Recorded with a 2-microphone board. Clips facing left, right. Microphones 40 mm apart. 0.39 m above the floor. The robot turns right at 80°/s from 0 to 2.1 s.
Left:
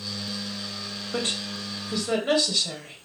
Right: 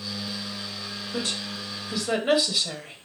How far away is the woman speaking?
About 2 m.